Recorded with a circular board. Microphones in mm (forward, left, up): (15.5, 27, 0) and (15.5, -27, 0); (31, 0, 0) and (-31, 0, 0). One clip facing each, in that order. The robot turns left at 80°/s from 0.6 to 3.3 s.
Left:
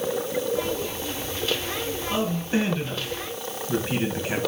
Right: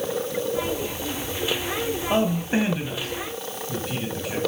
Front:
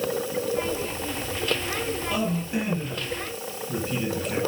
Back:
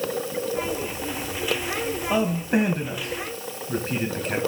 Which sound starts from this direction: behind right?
A man speaking, at 2.1 s.